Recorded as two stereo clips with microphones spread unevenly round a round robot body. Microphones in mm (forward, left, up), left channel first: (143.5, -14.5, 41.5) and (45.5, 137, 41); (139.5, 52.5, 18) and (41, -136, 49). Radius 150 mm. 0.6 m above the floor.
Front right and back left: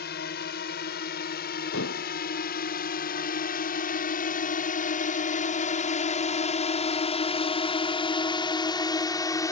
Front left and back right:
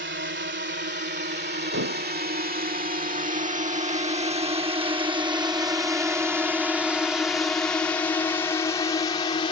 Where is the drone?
90° right; by 9.5 s 10° left.